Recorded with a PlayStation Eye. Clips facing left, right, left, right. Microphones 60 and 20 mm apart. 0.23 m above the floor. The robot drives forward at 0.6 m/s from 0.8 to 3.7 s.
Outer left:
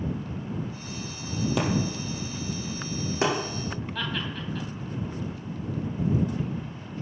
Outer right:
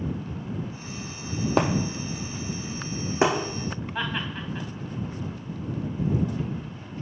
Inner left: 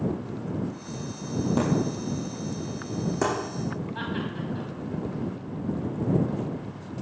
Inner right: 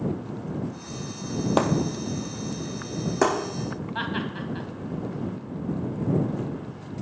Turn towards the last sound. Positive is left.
turn(degrees=-25)  # may be behind; listen again after turning